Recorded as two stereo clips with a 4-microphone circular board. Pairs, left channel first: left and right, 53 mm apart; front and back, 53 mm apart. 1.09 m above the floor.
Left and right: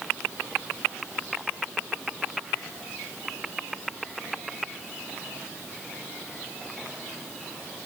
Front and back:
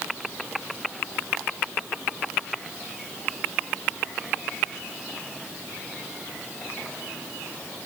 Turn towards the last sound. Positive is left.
No sound to turn to.